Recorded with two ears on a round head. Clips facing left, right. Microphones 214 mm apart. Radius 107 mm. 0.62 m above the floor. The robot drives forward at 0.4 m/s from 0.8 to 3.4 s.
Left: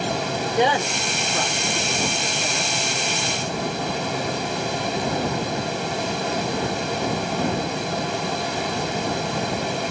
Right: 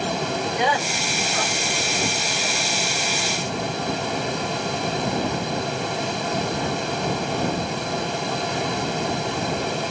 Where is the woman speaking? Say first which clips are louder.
Left 3 dB; 25° left (ahead or behind), 1.1 m; by 2.7 s 30° left (ahead or behind), 0.9 m.